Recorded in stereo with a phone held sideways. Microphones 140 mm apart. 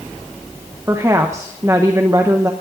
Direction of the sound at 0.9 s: 20° right (ahead or behind).